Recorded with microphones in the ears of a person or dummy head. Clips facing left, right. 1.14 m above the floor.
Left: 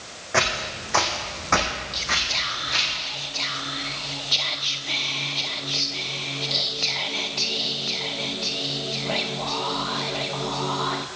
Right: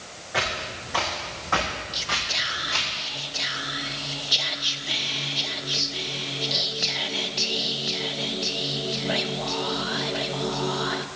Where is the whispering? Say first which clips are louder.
Left 1 dB; 15° right (ahead or behind), 0.6 m.